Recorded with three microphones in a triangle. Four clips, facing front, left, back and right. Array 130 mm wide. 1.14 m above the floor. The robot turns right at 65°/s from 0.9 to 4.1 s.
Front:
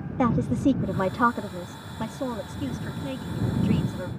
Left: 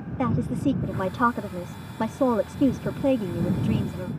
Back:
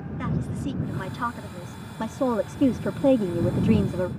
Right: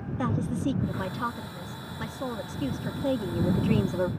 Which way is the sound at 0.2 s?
25° left.